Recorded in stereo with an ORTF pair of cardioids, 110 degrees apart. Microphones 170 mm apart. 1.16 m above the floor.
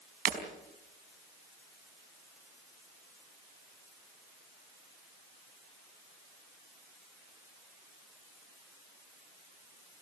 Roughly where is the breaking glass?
Ahead right.